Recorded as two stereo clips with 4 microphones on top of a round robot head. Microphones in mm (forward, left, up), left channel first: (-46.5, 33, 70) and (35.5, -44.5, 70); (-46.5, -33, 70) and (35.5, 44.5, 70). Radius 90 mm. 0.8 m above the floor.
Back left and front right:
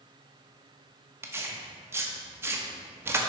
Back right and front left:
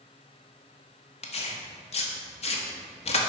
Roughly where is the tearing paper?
Right.